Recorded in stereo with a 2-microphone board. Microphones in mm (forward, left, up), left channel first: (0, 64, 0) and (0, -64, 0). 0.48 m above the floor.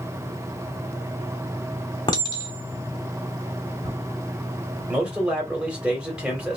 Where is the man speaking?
10° right (ahead or behind), 1.2 m.